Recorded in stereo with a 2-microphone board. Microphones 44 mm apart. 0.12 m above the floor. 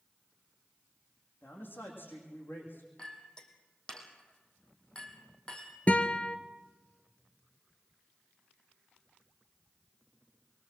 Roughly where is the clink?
Centre.